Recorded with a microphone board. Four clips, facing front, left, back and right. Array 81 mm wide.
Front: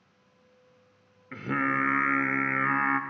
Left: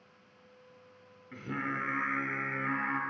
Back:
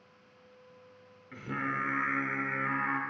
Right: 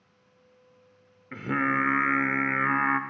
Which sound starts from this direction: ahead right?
Singing, at 1.3 s.